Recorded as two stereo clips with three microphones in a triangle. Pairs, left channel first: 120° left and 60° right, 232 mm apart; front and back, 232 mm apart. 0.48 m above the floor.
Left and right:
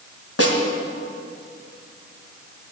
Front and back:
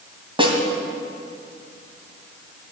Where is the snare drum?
115° left, 2.5 m.